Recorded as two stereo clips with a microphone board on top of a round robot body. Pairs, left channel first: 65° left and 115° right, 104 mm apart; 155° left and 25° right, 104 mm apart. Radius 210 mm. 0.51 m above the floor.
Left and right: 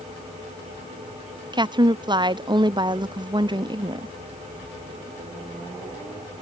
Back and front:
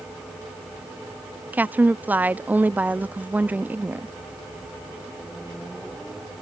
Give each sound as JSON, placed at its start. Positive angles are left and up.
{"t": 1.5, "sound": "a woman speaking", "azimuth_deg": -90}